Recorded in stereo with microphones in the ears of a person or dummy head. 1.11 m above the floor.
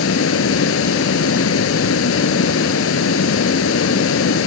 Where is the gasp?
I don't hear a gasp.